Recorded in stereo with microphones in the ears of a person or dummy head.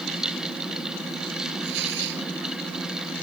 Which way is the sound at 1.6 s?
65° right (ahead or behind).